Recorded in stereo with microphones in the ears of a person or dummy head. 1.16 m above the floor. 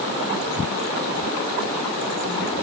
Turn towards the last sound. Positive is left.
No sound to turn to.